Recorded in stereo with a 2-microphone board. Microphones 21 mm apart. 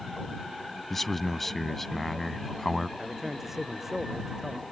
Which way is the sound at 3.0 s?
15° right (ahead or behind).